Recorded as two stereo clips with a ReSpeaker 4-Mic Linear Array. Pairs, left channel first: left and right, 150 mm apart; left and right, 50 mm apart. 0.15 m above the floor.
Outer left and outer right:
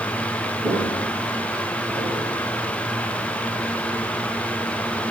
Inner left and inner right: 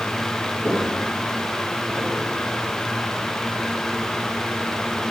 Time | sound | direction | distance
0.6 | footsteps | 20° right (ahead or behind) | 3.5 m